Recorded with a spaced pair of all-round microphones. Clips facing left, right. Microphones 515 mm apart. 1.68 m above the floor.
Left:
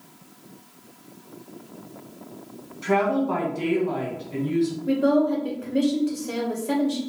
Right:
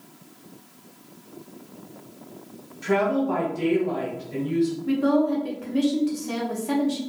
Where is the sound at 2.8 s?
Centre (ahead or behind), 1.5 m.